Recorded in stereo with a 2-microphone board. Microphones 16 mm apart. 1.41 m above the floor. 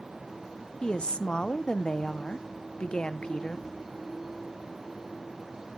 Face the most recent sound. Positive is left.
turn(degrees=75)  # may be behind; listen again after turning